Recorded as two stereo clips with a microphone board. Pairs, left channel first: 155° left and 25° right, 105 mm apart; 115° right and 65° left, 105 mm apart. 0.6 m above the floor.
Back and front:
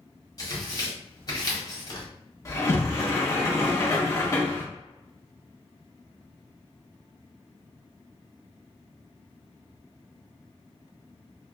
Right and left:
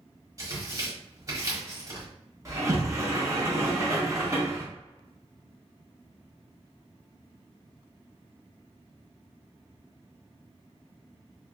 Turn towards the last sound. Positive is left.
turn(degrees=110)